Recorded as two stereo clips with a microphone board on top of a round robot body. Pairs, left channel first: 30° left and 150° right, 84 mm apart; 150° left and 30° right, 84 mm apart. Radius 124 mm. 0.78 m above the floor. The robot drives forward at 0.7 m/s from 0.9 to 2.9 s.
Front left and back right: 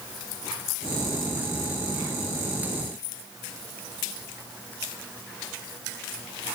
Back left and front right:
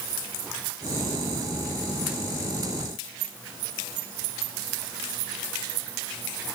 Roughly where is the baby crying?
I don't hear a baby crying.